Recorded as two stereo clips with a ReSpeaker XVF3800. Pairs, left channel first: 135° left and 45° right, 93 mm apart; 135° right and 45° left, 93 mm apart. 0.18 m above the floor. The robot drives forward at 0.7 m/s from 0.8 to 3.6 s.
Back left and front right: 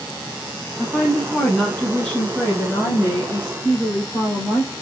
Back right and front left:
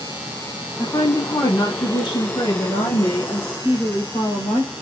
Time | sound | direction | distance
0.8 | a woman speaking | 120° right | 1.1 m